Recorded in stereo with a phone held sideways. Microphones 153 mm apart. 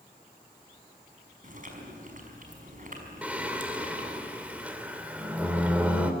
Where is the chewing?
55° right (ahead or behind), 5 m.